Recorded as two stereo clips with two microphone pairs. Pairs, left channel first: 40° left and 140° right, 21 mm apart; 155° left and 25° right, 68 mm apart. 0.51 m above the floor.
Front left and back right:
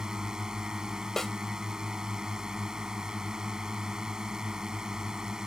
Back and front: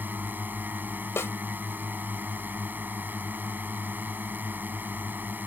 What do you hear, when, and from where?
0.0 s a drone: 85° right
1.2 s a snare drum: 105° left